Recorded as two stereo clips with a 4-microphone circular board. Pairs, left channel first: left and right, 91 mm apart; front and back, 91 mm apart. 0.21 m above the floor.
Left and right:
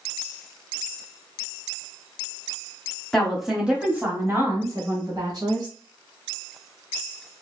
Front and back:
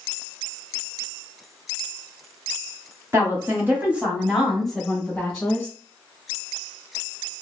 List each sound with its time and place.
3.1 s a woman speaking: 170° left, 1.3 m; by 5.7 s 70° right, 2.0 m